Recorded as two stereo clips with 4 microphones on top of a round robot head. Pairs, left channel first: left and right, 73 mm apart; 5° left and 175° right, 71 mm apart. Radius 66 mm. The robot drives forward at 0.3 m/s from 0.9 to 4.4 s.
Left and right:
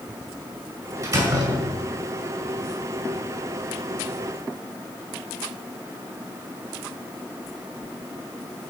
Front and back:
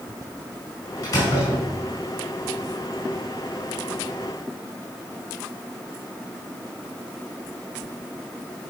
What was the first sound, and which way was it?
A door slam, 55° right.